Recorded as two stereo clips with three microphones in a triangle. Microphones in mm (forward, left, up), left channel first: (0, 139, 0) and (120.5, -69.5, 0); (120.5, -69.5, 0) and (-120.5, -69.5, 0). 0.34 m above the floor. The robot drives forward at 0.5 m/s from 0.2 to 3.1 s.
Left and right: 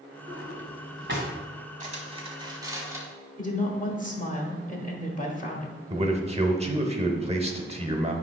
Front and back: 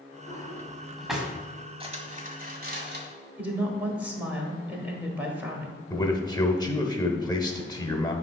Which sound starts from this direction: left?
A woman speaking, at 3.4 s.